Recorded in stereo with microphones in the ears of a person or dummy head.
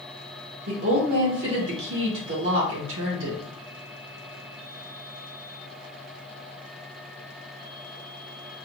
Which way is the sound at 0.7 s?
70° right (ahead or behind).